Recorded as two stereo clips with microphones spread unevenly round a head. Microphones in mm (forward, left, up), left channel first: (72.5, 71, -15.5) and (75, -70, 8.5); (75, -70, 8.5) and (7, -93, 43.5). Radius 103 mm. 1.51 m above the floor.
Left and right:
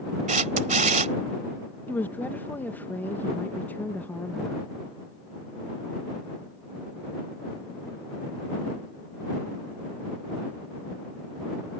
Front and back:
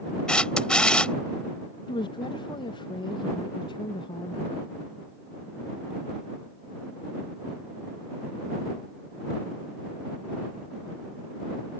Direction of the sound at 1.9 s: 10° left.